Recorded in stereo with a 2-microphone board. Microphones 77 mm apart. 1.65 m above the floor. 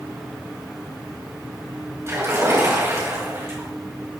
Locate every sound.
2.1 s a splash: 40° right (ahead or behind), 3 m